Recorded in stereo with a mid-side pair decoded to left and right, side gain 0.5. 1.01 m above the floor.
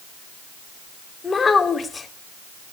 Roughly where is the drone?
I don't hear a drone.